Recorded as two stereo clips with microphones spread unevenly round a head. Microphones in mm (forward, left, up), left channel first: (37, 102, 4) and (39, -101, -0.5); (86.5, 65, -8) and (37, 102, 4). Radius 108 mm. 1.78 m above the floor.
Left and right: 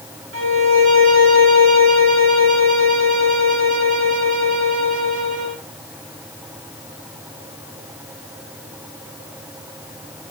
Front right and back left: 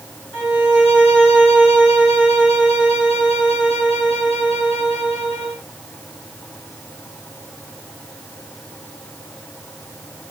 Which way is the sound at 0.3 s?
105° right.